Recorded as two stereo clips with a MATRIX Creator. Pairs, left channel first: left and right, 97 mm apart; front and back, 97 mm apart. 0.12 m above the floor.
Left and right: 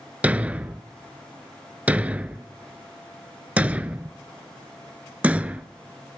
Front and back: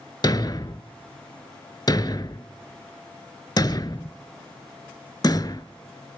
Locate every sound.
0.2 s a thud: 20° right, 0.6 m